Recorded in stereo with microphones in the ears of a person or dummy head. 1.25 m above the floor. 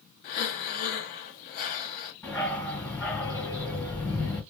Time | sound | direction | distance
0.2 | breathing | 50° left (ahead or behind) | 0.7 m
2.2 | a dog barking | 5° right (ahead or behind) | 1.3 m